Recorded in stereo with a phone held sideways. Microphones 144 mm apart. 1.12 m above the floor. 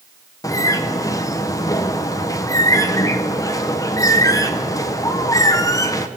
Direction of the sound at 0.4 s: 25° left (ahead or behind).